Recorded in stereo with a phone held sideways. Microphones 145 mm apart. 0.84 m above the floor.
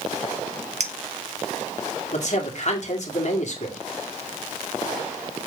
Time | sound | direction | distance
0.8 | a clink | 55° right (ahead or behind) | 0.8 m
2.1 | a man speaking | 55° left (ahead or behind) | 2.5 m